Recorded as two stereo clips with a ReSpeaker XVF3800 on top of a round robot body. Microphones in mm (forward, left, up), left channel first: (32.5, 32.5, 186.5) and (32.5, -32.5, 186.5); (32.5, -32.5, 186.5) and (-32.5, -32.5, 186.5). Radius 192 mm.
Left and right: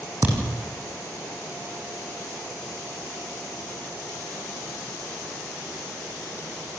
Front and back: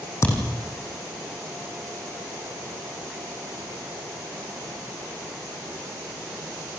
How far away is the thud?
About 6 m.